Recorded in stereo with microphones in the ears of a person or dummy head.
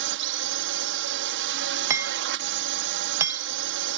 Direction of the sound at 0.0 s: 65° right (ahead or behind).